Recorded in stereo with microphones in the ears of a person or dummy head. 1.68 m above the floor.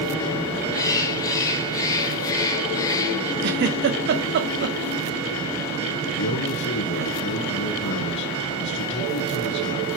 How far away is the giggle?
About 1.2 m.